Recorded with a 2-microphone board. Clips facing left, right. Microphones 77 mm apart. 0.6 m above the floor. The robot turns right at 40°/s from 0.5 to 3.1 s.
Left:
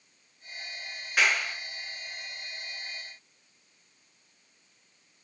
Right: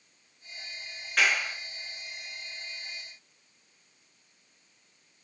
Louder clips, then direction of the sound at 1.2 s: Even; 10° left (ahead or behind).